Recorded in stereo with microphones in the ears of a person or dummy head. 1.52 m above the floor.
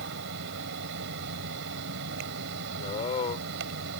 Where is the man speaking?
35° left (ahead or behind).